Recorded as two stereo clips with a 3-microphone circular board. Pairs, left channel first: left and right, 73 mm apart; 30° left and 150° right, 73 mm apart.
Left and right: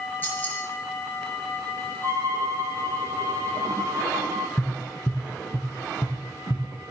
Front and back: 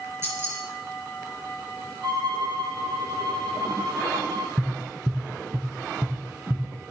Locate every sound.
0.2 s keys jangling: 155° left, 5.5 m
2.0 s a violin: 135° right, 3 m
4.6 s tapping: 140° left, 1.8 m